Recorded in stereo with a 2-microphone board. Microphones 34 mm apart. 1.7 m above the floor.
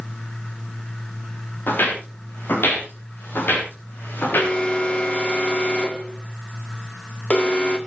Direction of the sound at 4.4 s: 35° left (ahead or behind).